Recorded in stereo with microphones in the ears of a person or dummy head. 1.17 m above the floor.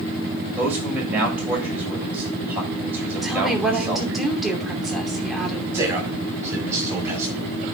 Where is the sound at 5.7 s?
20° right (ahead or behind), 6.5 m.